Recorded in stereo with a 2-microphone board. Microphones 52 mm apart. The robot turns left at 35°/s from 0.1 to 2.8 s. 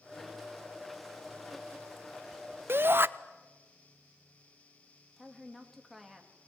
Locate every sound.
2.7 s a shout: 50° right (ahead or behind), 0.7 m; by 3.1 s 45° right (ahead or behind), 0.7 m
5.2 s a woman speaking: centre (ahead or behind), 3 m